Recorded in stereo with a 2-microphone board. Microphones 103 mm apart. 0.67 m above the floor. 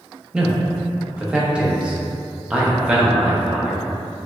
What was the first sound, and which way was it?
A man speaking, 10° right (ahead or behind).